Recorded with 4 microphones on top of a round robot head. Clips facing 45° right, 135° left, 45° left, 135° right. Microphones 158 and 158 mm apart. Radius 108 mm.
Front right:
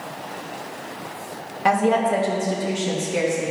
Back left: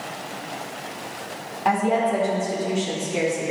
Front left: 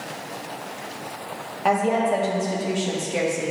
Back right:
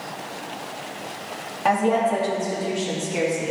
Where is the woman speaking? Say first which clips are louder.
Front right 2 dB, back right 1 dB; 45° right, 1.9 m; by 3.5 s 5° left, 2 m.